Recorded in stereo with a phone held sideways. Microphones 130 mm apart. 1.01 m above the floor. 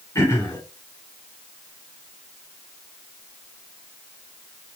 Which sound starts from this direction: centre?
Throat clearing, at 0.1 s.